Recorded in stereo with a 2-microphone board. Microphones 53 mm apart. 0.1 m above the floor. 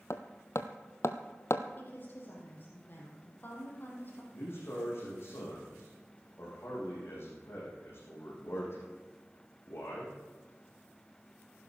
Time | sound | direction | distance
0.1 | hammering | 60° left (ahead or behind) | 0.8 m
1.8 | a woman speaking | 40° left (ahead or behind) | 4 m
4.3 | a man speaking | 50° left (ahead or behind) | 6.5 m